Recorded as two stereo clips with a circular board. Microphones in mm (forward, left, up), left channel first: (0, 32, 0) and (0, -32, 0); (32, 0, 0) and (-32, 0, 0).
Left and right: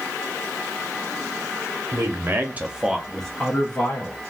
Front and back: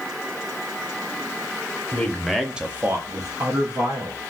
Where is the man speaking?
65° right, 0.8 m; by 4.2 s 150° left, 1.3 m.